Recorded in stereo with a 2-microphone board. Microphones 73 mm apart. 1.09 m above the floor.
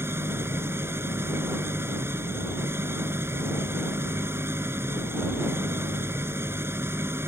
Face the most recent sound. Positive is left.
turn(degrees=-30)  # may be behind; listen again after turning